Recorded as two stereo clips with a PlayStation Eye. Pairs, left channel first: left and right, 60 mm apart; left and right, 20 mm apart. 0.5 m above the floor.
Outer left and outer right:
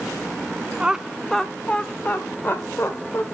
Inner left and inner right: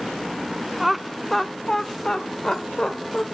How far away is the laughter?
About 0.8 m.